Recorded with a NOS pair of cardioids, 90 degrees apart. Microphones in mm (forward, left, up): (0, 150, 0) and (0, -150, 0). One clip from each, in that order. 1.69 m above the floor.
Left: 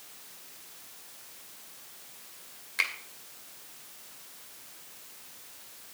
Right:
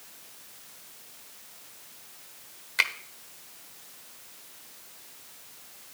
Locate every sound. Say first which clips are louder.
2.8 s a finger snap: right 4 dB; 25° right, 1.3 m